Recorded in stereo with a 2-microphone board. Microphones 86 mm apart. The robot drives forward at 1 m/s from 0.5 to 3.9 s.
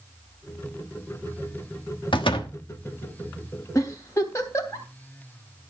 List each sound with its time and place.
2.1 s a door slam: 75° left (ahead or behind), 1.2 m; by 2.6 s 80° left, 1.1 m
3.8 s a giggle: 40° left (ahead or behind), 2.5 m